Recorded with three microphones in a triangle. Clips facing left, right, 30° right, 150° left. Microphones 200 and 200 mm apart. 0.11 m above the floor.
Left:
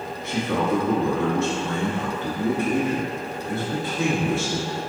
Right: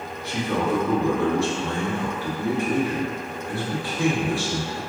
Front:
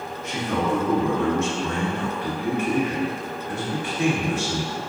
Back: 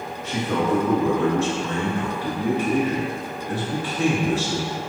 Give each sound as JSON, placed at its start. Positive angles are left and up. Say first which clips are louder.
{"t": 0.2, "sound": "a man speaking", "louder": "left 1 dB, back 2 dB", "azimuth_deg": 140, "distance_m": 1.5}